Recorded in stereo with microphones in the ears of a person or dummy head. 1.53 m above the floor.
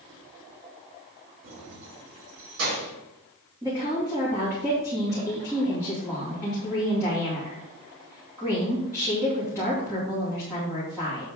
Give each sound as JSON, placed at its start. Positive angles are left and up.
{"t": 1.4, "sound": "keys jangling", "side_deg": -70, "distance_m": 3.0}
{"t": 3.6, "sound": "a woman speaking", "side_deg": -10, "distance_m": 2.5}